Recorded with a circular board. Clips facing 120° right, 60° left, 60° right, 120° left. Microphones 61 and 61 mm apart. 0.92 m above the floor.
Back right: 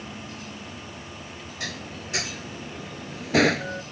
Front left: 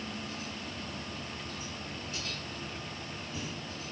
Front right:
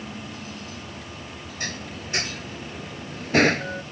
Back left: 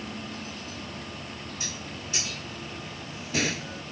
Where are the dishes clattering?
105° right.